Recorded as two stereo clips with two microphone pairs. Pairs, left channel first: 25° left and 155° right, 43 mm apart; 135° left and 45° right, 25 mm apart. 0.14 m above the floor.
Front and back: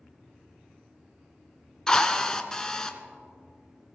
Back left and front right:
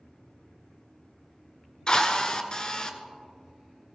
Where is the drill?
100° left, 0.9 m.